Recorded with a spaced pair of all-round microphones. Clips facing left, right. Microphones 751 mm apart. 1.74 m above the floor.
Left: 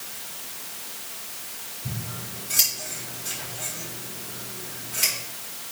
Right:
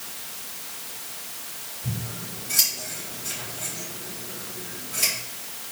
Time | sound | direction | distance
1.8 | scissors | 70° right (ahead or behind) | 5.5 m